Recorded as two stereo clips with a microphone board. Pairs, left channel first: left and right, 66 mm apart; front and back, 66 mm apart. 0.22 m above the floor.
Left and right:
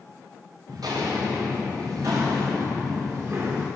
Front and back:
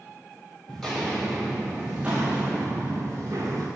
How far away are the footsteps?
About 2.5 m.